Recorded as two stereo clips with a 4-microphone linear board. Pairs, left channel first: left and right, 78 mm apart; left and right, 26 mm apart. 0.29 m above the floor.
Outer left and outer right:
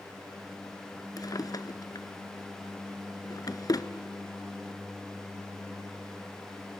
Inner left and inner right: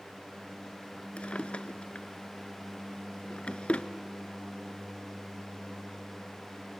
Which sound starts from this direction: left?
A drawer, at 1.2 s.